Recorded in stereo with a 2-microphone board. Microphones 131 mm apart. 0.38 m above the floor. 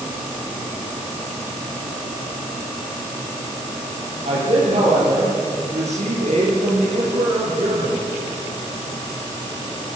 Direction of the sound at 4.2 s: 55° right (ahead or behind).